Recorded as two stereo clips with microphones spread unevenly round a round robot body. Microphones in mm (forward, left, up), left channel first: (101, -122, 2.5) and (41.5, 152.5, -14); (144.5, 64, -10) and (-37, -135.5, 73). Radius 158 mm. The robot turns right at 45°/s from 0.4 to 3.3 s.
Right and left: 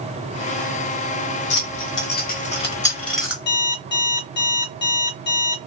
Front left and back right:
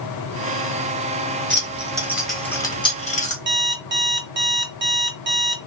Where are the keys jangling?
60° right, 1.1 m; by 3.4 s 20° left, 1.1 m.